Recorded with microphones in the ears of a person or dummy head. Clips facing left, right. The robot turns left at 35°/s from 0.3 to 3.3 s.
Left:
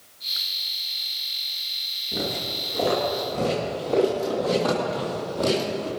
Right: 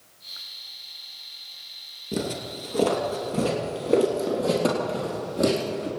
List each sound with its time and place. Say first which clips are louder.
2.1 s footsteps: right 1 dB; 50° right (ahead or behind), 2.5 m; by 5.9 s 25° right (ahead or behind), 4.5 m